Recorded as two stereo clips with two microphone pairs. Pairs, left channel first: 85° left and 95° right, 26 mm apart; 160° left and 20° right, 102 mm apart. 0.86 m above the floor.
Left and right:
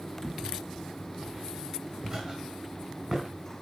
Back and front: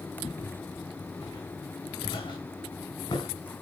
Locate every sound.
0.2 s footsteps: 170° right, 4.5 m; by 3.3 s 160° right, 6 m